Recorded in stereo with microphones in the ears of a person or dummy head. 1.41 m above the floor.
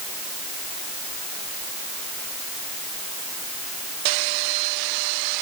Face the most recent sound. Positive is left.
No sound to turn to.